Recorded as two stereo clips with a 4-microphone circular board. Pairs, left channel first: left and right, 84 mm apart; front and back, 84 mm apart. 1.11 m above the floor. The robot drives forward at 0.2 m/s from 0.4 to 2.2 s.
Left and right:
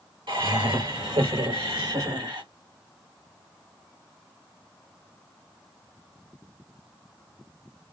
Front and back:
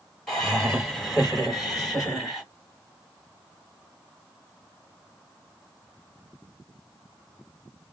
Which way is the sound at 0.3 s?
85° right.